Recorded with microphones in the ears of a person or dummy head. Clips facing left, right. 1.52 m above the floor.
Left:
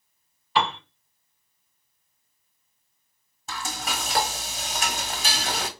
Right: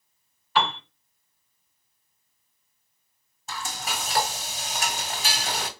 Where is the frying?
50° left (ahead or behind), 1.8 m.